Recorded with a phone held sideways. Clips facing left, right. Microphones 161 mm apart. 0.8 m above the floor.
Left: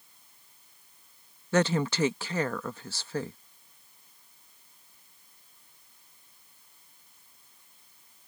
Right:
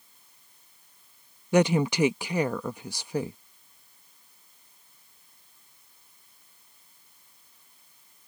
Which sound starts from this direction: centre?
A woman speaking, at 1.5 s.